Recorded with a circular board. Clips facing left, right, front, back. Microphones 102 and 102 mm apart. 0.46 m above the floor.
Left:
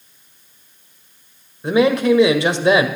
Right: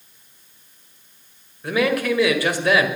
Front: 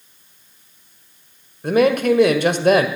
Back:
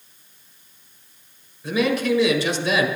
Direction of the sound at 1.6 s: 25° left.